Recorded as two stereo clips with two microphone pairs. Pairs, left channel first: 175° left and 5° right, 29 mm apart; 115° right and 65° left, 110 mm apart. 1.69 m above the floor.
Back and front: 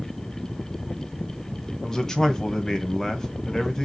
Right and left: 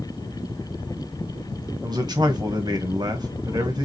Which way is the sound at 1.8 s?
105° left.